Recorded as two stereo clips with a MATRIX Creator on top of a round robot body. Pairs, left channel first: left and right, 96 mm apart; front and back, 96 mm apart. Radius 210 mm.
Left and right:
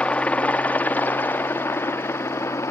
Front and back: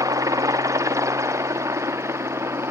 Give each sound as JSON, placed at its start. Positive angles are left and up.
{"t": 0.0, "sound": "a helicopter", "azimuth_deg": 160}